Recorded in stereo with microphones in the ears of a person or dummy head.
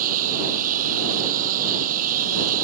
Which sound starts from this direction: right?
A lawn mower, at 0.0 s.